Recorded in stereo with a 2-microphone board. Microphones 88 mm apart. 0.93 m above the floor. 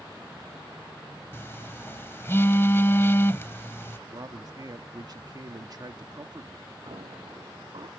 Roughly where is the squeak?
Right.